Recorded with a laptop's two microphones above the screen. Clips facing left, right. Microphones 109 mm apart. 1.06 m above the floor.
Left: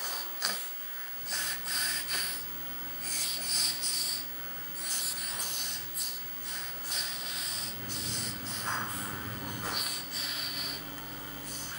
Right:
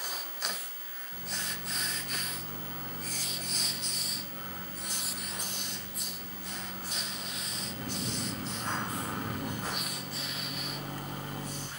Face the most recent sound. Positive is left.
turn(degrees=-65)  # may be behind; listen again after turning